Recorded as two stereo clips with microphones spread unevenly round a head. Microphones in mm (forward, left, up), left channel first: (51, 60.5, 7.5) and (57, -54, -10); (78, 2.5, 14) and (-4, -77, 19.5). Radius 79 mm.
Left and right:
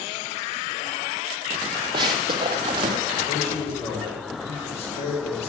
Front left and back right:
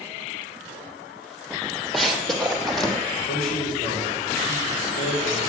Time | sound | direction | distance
1.9 | running footsteps | 45° right | 1.9 m
3.3 | a man speaking | 65° left | 5 m